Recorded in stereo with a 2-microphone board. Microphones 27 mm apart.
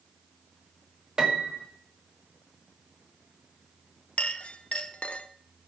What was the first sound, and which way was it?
A piano, 30° right (ahead or behind).